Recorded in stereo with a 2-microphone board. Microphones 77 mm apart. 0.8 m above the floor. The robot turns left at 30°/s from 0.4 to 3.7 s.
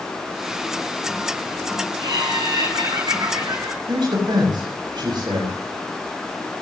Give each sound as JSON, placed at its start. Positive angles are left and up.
{"t": 2.0, "sound": "laughter", "azimuth_deg": -80, "distance_m": 9.5}
{"t": 3.9, "sound": "a man speaking", "side_deg": -75, "distance_m": 6.0}